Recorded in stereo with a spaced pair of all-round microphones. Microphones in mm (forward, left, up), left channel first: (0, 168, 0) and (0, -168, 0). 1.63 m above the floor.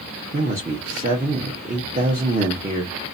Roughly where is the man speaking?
Right.